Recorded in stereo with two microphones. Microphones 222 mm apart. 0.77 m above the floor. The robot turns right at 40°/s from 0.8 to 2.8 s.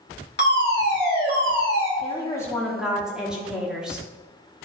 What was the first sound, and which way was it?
A fire alarm, 100° left.